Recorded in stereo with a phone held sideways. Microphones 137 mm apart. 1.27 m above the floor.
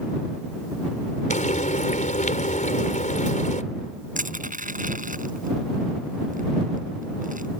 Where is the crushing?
75° right (ahead or behind).